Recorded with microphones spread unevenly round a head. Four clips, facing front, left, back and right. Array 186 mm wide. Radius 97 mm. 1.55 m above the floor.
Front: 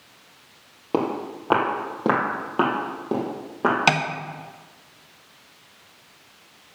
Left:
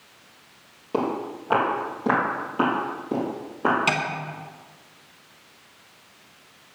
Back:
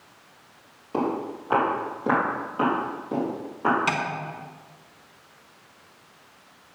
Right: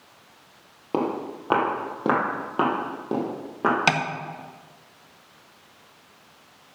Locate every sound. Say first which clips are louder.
0.9 s footsteps: even, front 2 dB; 25° right, 3 m; by 3.8 s 40° right, 4.5 m
3.9 s tapping: right 2 dB, front 5 dB; 40° right, 0.9 m